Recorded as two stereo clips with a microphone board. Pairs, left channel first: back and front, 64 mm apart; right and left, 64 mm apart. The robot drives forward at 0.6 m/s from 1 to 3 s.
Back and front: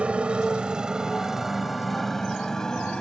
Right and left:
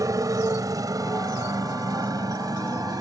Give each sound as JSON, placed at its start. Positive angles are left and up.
{"t": 0.0, "sound": "a motorcycle", "azimuth_deg": 70}